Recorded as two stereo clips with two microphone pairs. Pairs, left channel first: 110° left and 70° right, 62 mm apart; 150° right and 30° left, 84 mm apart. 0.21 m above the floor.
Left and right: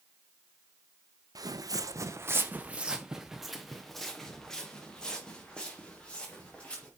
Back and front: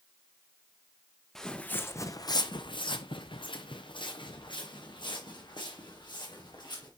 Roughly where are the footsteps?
Ahead right.